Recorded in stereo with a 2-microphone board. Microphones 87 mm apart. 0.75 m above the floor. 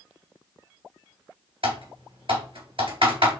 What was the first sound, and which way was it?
Typing on a keyboard, 75° right (ahead or behind).